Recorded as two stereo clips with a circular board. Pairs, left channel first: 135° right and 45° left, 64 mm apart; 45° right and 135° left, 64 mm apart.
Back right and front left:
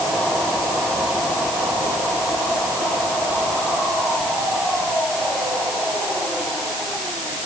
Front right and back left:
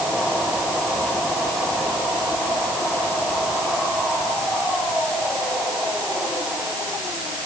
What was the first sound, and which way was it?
Only background noise.